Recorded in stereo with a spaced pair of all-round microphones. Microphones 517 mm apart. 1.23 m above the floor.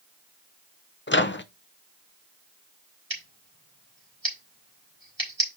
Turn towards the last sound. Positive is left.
turn(degrees=-45)  # may be behind; listen again after turning